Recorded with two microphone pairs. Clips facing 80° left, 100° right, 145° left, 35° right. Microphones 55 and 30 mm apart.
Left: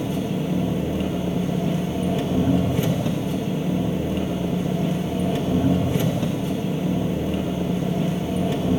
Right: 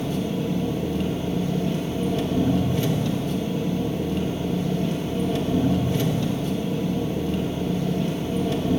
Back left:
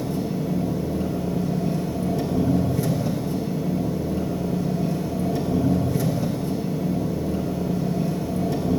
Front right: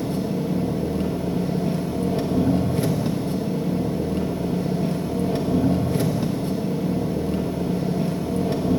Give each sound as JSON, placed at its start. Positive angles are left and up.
{"t": 0.0, "sound": "an engine running", "azimuth_deg": 10, "distance_m": 1.0}